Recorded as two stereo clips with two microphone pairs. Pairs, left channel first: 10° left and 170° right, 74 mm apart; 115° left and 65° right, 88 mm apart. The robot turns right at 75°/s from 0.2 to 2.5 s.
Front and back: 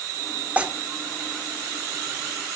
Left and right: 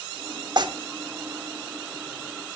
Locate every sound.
0.6 s tearing paper: 100° right, 1.0 m; by 0.7 s 90° right, 1.0 m